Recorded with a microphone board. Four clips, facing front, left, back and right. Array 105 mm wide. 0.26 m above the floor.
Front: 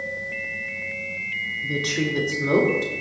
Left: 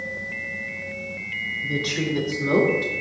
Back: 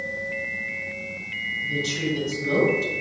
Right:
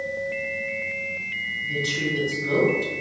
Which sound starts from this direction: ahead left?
A woman speaking, at 1.6 s.